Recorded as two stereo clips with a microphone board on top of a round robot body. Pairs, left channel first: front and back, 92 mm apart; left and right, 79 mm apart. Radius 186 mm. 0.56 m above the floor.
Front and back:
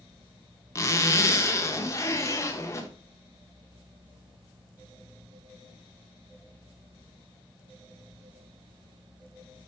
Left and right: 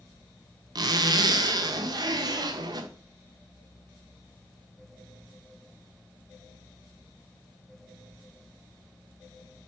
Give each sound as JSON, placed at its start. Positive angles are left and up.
{"t": 0.8, "sound": "a zipper", "azimuth_deg": -60, "distance_m": 1.0}